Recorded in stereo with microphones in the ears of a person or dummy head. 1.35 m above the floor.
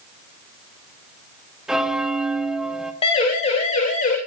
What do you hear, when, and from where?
1.7 s a bell: 5° right (ahead or behind), 2.0 m
3.0 s a siren: 30° left (ahead or behind), 6.5 m; by 4.2 s 40° left (ahead or behind), 8 m